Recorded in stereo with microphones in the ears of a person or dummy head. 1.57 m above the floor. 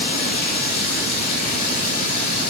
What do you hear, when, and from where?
0.0 s running water: 60° left (ahead or behind), 5 m